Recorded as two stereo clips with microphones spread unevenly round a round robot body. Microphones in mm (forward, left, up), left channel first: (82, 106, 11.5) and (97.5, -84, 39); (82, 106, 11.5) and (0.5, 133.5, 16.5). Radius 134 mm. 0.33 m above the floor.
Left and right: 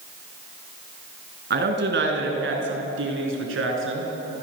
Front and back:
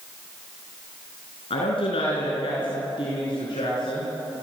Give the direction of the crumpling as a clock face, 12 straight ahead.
I don't hear crumpling.